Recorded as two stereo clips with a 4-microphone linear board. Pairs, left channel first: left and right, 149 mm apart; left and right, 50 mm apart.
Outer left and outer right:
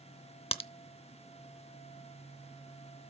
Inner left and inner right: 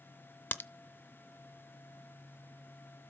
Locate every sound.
0.5 s a crack: 40° left (ahead or behind), 0.6 m